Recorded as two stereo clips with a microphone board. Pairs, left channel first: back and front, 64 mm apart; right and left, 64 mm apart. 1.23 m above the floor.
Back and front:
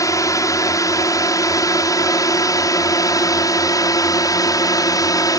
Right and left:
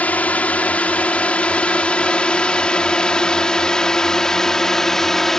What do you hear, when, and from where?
0.0 s a drone: 155° right; by 5.4 s 175° right